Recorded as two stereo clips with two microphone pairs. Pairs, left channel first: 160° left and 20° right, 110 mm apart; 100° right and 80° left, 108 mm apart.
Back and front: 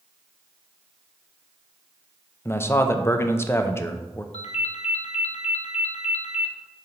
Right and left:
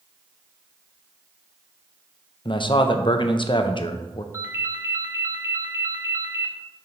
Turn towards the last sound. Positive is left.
turn(degrees=145)